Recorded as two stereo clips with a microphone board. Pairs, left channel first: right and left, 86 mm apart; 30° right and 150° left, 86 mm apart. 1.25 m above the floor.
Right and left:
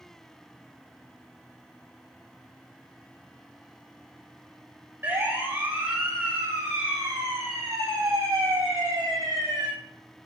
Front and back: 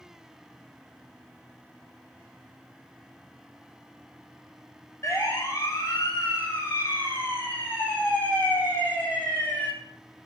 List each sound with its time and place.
5.0 s a siren: 25° left, 8.5 m; by 9.7 s 45° left, 10 m